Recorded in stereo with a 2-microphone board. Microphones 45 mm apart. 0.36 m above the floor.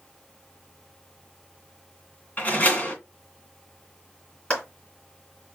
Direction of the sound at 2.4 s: 35° left (ahead or behind).